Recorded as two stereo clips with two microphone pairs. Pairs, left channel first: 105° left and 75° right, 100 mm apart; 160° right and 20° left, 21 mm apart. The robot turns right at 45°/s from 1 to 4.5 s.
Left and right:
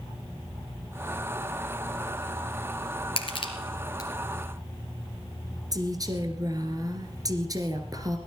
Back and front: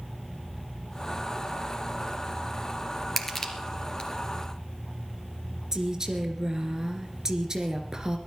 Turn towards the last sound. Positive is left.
turn(degrees=-35)